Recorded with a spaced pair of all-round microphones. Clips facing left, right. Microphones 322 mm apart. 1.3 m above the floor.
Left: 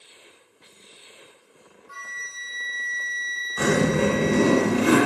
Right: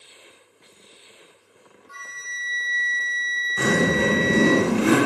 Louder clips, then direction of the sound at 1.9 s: Even; 50° right (ahead or behind).